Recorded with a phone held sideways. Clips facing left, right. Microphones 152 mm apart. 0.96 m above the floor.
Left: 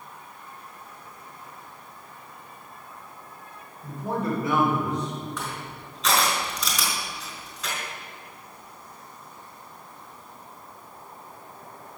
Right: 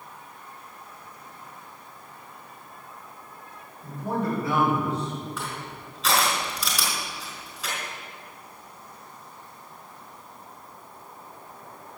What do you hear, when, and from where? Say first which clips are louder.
3.8 s a man speaking: even; 25° left (ahead or behind), 5 m; by 5.3 s 20° left (ahead or behind), 3.5 m
5.4 s crushing: even; centre (ahead or behind), 5 m